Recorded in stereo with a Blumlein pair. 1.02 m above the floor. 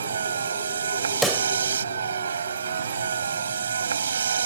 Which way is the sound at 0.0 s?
70° right.